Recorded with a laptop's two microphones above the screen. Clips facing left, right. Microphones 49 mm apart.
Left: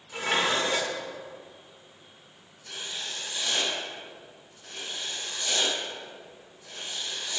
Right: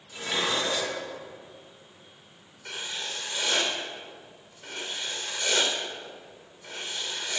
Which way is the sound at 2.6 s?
80° right.